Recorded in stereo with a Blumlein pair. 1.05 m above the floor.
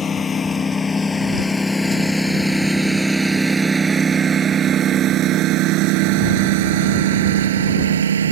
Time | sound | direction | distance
0.0 | a lawn mower | 20° left | ?